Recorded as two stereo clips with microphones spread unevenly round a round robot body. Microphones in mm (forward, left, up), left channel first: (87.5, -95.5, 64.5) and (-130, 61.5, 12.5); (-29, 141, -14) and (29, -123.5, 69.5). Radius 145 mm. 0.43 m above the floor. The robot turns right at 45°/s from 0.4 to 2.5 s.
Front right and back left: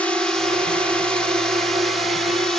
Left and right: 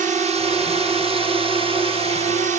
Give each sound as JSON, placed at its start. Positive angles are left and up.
{"t": 0.0, "sound": "a drone", "azimuth_deg": -140}